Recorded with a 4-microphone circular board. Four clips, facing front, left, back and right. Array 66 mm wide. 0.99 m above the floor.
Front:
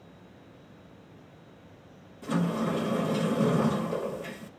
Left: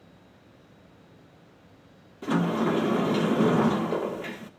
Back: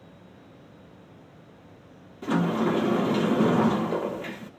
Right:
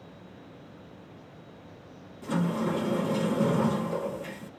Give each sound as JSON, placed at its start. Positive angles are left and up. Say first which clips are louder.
{"t": 2.2, "sound": "a sliding door", "louder": "left 4 dB, back 4 dB", "azimuth_deg": 135, "distance_m": 1.2}